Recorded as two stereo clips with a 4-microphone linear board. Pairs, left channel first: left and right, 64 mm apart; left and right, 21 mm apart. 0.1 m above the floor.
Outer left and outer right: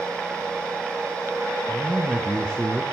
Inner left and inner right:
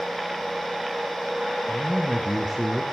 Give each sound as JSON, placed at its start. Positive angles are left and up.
{"t": 1.7, "sound": "a man speaking", "side_deg": 10, "distance_m": 1.1}